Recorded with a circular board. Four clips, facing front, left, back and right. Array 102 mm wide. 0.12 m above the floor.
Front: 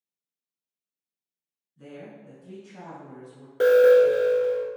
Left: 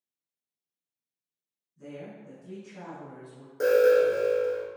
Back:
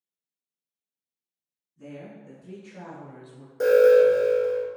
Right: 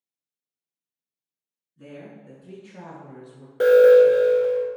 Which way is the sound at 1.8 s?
40° right.